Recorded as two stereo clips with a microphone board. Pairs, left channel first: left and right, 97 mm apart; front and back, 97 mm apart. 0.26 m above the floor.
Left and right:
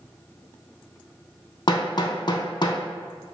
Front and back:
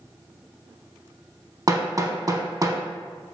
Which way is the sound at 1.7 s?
125° left.